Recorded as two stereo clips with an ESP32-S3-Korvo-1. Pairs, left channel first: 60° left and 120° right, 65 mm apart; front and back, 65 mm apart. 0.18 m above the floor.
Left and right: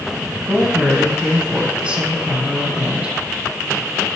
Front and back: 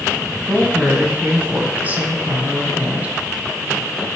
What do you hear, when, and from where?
0.5 s a woman speaking: 170° right, 1.7 m